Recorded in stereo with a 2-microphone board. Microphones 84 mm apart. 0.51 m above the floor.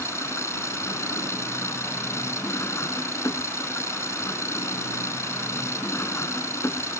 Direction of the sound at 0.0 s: 30° left (ahead or behind).